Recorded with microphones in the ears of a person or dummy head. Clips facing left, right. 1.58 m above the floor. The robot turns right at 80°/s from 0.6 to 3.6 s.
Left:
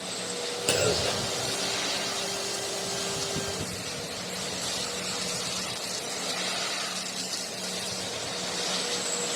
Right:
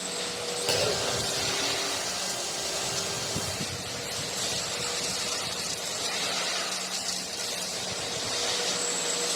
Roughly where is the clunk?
Ahead left.